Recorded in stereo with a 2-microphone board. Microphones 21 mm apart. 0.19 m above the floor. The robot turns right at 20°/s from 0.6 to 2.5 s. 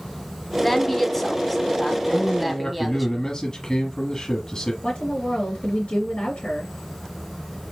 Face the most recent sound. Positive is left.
turn(degrees=55)  # may be behind; listen again after turning